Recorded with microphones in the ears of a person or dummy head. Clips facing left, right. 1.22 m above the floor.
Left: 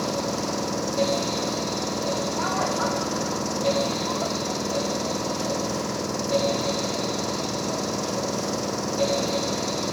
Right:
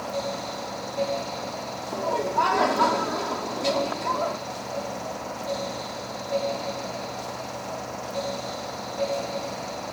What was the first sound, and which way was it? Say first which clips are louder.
An engine running: left 4 dB; 65° left (ahead or behind).